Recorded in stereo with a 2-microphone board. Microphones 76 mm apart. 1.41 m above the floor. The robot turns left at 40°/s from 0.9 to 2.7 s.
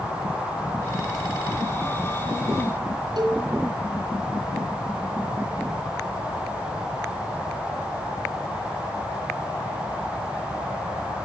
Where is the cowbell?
70° right (ahead or behind), 3.5 m.